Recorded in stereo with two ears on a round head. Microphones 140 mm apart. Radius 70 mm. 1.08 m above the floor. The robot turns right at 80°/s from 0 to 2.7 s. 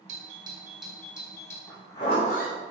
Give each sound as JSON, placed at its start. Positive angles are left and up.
{"t": 0.1, "sound": "a doorbell", "azimuth_deg": -60, "distance_m": 1.5}
{"t": 1.7, "sound": "a zipper", "azimuth_deg": 0, "distance_m": 2.5}